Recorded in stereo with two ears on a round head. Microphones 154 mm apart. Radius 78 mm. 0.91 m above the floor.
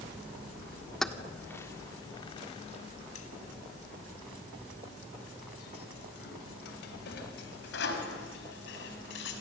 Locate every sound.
1.0 s keys jangling: centre (ahead or behind), 1.6 m; by 9.3 s 75° left (ahead or behind), 5.5 m